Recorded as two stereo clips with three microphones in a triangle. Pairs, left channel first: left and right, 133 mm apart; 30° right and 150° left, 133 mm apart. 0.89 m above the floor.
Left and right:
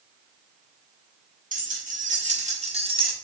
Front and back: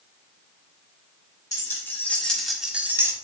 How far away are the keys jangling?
About 2 m.